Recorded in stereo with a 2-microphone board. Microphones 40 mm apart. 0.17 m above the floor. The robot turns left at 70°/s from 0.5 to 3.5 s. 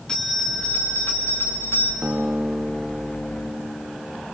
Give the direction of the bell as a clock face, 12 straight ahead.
7 o'clock.